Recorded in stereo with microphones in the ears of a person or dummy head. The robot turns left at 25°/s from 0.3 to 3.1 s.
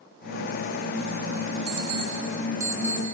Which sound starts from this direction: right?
An alarm clock, at 1.7 s.